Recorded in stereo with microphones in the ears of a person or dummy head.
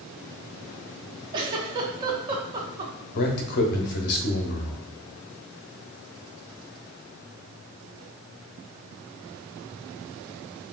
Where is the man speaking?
55° left (ahead or behind), 0.8 m.